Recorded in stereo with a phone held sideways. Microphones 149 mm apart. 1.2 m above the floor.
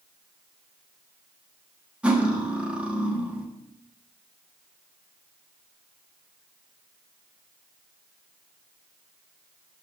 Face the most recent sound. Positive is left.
turn(degrees=-5)  # may be behind; listen again after turning